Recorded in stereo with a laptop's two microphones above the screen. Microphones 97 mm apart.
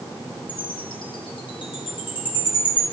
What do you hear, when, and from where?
0.5 s a chime: 60° left (ahead or behind), 4.5 m